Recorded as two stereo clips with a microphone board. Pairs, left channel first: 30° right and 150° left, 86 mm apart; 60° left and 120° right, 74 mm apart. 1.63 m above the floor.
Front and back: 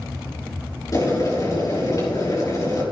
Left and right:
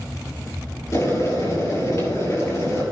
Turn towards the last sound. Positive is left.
turn(degrees=15)